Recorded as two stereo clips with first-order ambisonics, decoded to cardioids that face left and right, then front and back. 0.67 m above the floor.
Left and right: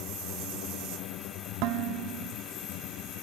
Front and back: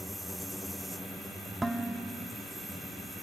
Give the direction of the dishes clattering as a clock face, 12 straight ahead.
3 o'clock.